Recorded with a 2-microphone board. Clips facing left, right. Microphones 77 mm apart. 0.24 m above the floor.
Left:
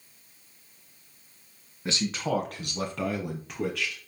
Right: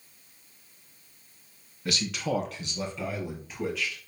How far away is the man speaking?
About 2 m.